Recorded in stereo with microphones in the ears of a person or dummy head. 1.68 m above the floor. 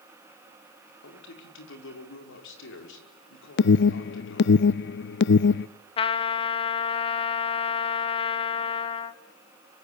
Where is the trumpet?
30° left (ahead or behind), 1.1 m.